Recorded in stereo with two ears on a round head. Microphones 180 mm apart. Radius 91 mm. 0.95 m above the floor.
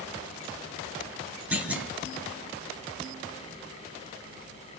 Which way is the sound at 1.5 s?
10° right (ahead or behind).